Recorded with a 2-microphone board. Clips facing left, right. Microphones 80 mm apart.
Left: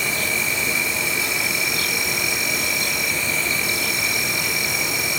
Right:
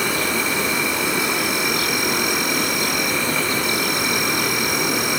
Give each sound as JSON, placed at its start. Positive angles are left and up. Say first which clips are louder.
{"t": 0.0, "sound": "an insect", "louder": "right 4 dB", "side_deg": -60, "distance_m": 1.4}